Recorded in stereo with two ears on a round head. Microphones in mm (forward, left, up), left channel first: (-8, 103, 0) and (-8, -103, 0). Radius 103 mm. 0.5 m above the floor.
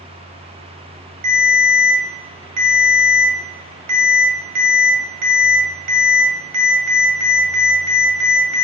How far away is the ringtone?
About 1.7 m.